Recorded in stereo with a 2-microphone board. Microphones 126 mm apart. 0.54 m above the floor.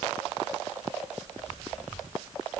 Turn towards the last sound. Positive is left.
No sound to turn to.